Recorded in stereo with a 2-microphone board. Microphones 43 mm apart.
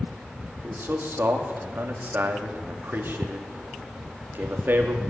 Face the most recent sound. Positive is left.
turn(degrees=-55)  # may be behind; listen again after turning